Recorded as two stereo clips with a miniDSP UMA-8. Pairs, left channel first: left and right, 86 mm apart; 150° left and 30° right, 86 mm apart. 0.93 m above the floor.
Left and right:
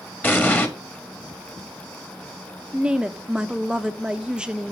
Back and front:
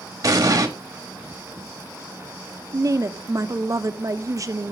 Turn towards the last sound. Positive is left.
turn(degrees=-15)